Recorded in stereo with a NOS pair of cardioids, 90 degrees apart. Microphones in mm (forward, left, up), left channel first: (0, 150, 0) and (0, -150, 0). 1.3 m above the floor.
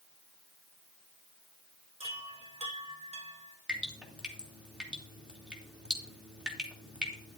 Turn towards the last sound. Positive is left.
turn(degrees=-5)